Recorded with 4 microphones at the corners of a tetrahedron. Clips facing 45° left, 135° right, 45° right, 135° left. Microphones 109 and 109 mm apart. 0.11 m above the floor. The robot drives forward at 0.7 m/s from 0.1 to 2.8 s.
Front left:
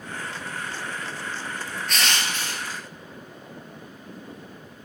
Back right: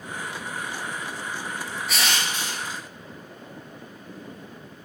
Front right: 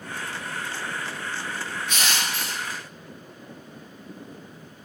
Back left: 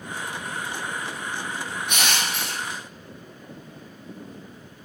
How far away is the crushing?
About 1.1 m.